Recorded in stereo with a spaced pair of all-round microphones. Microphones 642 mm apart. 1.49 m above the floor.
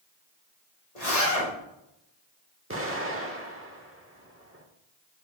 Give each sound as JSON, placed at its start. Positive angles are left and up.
{"t": 0.9, "sound": "a zipper", "side_deg": 75, "distance_m": 3.0}
{"t": 2.7, "sound": "an explosion", "side_deg": -20, "distance_m": 1.2}